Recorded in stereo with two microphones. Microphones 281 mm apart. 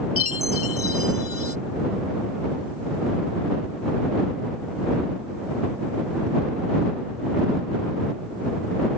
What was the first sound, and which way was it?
A chime, 50° left (ahead or behind).